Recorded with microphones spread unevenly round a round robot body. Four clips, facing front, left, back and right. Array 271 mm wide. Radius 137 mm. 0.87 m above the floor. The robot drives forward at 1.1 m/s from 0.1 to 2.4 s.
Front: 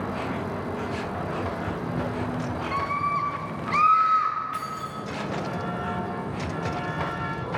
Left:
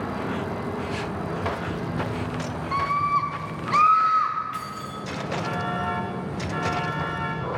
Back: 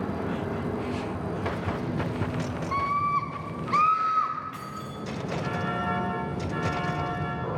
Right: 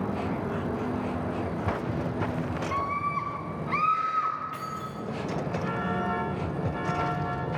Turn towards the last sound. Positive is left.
turn(degrees=-115)